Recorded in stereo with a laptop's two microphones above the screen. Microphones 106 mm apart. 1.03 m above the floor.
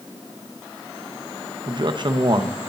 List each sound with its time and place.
1.7 s a man speaking: 45° right (ahead or behind), 0.8 m